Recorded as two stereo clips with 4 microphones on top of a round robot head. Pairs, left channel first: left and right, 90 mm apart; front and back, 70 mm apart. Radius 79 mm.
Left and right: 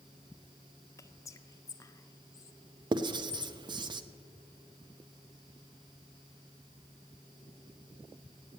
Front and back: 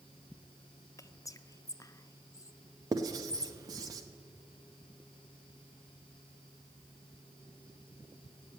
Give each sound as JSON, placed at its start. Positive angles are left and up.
{"t": 1.0, "sound": "whispering", "azimuth_deg": 35, "distance_m": 0.7}
{"t": 2.9, "sound": "writing", "azimuth_deg": -130, "distance_m": 0.6}